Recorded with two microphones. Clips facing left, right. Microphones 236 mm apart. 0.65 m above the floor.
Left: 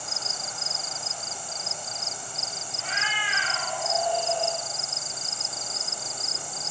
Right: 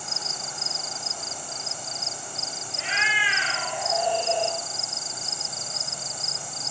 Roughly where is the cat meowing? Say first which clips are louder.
Right 3 dB; right.